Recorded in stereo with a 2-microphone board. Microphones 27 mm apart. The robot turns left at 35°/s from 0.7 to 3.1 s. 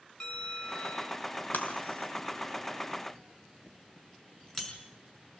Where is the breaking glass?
80° left, 5 m; by 4.7 s 25° left (ahead or behind), 5 m.